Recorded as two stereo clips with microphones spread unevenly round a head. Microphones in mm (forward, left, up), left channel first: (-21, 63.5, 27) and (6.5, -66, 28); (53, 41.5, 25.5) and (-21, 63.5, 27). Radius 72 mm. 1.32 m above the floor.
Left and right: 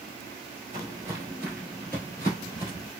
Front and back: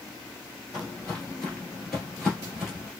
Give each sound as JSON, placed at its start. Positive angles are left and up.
{"t": 0.7, "sound": "footsteps", "azimuth_deg": -80, "distance_m": 1.4}